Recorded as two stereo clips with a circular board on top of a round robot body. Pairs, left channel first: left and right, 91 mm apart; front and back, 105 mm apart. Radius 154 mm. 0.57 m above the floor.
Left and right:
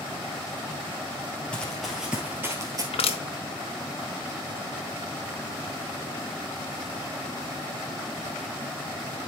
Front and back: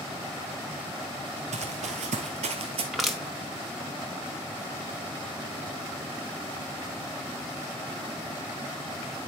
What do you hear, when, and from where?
1.5 s running footsteps: 170° left, 1.0 m; by 2.8 s 145° right, 1.0 m
2.9 s crushing: 90° left, 1.5 m